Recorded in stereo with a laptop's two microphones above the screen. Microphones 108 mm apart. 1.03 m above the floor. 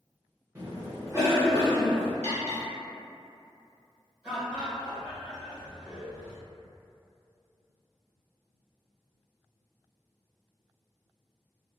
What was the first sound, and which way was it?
A cough, 20° right (ahead or behind).